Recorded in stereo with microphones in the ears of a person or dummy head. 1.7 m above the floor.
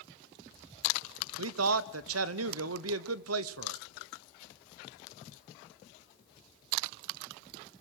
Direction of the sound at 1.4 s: 85° right.